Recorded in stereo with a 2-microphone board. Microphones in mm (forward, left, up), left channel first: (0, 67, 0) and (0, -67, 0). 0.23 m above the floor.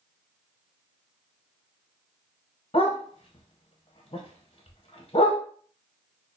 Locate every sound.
2.7 s a dog barking: 45° left (ahead or behind), 0.8 m